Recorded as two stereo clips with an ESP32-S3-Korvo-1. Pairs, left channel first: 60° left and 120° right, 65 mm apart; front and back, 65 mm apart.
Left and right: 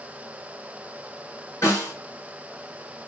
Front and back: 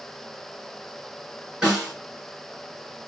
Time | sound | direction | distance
1.6 | a snare drum | 105° left | 1.9 m